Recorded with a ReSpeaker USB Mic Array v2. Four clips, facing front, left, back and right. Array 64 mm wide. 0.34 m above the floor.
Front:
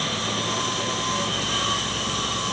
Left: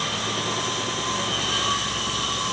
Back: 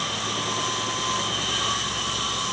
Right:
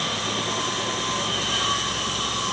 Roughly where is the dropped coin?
I don't hear a dropped coin.